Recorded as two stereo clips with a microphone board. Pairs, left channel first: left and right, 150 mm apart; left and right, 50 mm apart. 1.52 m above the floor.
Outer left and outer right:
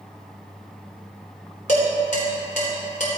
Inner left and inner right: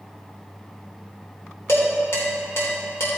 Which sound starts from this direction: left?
Dishes clattering, at 1.7 s.